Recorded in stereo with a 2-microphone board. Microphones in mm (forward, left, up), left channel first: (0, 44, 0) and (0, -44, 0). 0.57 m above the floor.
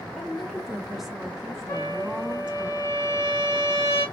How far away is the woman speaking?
About 1.5 m.